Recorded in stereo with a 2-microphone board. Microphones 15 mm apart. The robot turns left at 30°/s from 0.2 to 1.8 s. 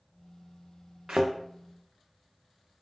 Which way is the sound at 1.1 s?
55° right (ahead or behind).